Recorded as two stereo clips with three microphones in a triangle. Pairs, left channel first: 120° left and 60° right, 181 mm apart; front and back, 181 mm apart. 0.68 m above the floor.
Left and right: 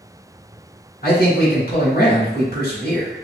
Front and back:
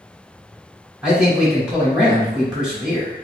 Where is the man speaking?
95° left, 1.7 m.